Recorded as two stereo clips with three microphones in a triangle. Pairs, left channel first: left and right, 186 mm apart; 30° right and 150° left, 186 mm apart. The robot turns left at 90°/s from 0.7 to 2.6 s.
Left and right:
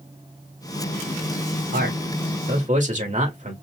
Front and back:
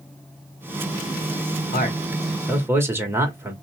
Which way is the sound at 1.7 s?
55° right.